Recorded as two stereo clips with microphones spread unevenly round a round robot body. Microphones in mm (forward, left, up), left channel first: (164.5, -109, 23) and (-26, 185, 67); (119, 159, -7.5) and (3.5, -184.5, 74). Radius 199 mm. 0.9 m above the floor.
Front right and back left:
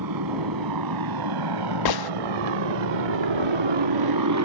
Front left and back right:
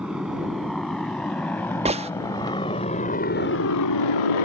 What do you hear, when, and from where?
0.0 s a motorcycle: 165° left; by 4.5 s 80° left
1.9 s a gunshot: 35° right